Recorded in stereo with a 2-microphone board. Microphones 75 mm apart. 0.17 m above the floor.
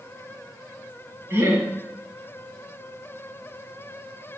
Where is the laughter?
30° right (ahead or behind), 3 m.